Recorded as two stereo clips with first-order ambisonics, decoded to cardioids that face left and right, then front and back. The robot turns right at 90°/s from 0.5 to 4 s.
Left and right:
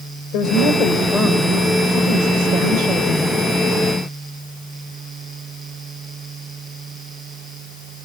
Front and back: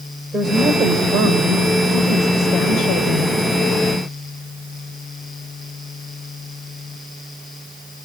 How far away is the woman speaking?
About 1.8 m.